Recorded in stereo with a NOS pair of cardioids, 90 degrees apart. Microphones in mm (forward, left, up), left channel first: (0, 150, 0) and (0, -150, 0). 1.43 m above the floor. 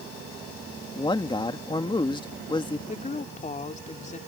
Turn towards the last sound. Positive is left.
turn(degrees=25)